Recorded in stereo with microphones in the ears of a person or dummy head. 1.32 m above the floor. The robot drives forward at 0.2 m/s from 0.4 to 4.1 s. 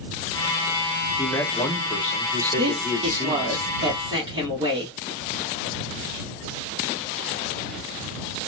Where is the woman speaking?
30° right (ahead or behind), 1.1 m; by 5.0 s 25° right (ahead or behind), 1.4 m.